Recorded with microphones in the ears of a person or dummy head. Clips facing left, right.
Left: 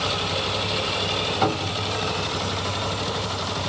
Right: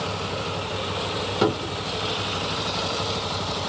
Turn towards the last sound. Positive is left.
turn(degrees=-55)  # may be behind; listen again after turning